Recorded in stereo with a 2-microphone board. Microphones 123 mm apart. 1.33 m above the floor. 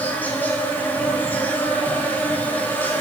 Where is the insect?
15° left (ahead or behind), 2.5 m.